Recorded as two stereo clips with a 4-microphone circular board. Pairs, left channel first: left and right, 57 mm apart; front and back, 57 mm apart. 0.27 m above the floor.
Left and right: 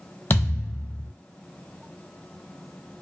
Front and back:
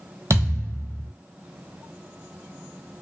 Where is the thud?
150° left, 0.7 m.